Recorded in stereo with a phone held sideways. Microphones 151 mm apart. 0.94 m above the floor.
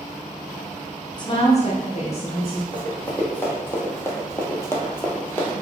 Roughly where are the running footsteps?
Centre.